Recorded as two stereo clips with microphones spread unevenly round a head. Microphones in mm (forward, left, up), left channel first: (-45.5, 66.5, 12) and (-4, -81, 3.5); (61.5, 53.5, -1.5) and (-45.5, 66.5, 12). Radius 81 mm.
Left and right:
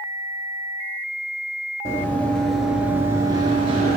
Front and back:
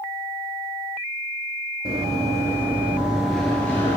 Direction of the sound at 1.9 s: 170° left.